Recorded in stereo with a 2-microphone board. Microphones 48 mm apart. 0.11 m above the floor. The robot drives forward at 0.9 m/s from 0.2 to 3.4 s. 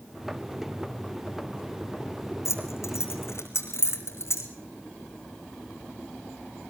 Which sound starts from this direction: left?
Keys jangling, at 2.5 s.